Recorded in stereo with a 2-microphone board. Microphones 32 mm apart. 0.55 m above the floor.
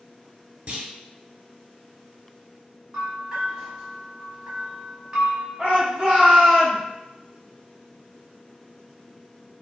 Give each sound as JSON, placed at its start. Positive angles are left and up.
{"t": 0.7, "sound": "a clunk", "side_deg": -50, "distance_m": 0.9}
{"t": 2.9, "sound": "a bell", "side_deg": -20, "distance_m": 1.3}
{"t": 5.6, "sound": "a shout", "side_deg": -20, "distance_m": 1.2}